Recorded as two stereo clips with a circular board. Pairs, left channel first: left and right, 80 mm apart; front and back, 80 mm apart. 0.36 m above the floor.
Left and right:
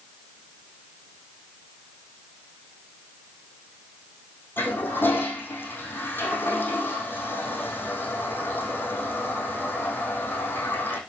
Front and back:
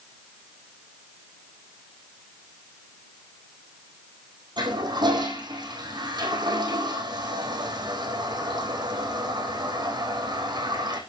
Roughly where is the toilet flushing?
Behind left.